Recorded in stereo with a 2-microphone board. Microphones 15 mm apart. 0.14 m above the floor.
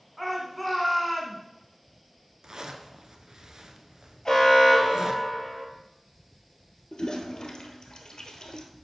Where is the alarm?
30° left (ahead or behind), 2.5 m.